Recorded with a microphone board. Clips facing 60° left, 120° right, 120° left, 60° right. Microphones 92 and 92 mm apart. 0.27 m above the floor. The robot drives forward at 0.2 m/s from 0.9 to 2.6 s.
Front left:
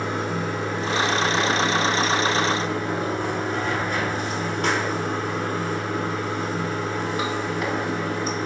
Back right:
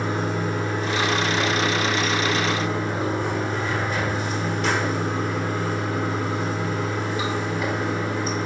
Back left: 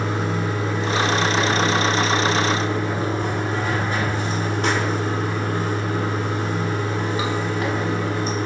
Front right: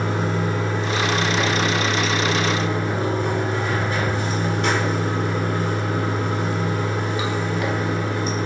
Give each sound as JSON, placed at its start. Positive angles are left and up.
{"t": 0.0, "sound": "running water", "azimuth_deg": 55, "distance_m": 1.1}